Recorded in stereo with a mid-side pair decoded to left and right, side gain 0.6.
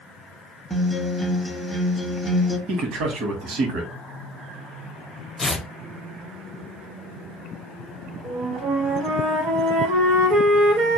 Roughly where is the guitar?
Ahead.